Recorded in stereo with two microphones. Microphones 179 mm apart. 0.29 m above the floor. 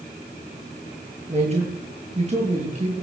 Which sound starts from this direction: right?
A man speaking, at 1.3 s.